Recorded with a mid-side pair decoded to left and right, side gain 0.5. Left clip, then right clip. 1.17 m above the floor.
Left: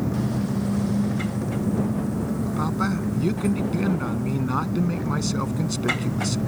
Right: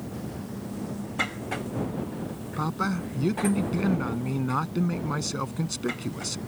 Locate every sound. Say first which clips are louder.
0.0 s an engine running: left 10 dB; 65° left
2.6 s a man speaking: left 1 dB; 5° left